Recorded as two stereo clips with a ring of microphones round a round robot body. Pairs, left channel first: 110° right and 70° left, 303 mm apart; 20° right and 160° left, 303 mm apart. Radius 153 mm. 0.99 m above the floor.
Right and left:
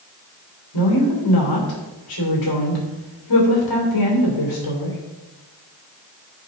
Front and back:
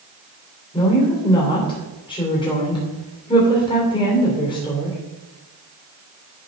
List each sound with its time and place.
0.7 s a woman speaking: 95° right, 2.5 m